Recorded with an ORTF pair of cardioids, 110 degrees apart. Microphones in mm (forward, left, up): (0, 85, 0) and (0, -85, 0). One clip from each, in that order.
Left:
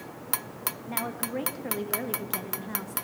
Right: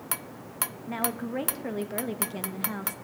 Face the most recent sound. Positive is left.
turn(degrees=-20)